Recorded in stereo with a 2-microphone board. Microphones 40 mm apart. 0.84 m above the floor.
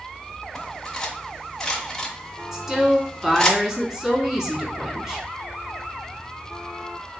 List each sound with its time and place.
0.6 s cutlery clinking: 10° left (ahead or behind), 0.9 m
2.5 s a woman speaking: 20° right (ahead or behind), 1.3 m